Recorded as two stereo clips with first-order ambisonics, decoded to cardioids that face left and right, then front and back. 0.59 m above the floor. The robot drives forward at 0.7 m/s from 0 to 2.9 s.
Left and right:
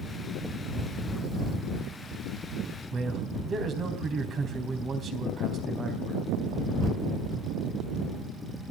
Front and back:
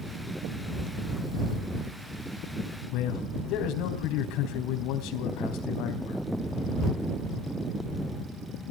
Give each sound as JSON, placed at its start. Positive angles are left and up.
{"t": 2.9, "sound": "a man speaking", "azimuth_deg": -30, "distance_m": 3.5}